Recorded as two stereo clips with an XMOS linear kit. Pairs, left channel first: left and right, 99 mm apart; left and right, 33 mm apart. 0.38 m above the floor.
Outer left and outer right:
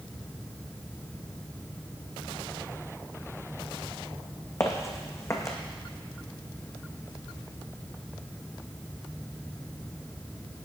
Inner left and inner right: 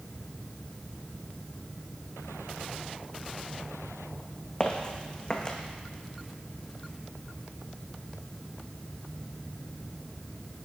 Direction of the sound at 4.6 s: 30° left (ahead or behind).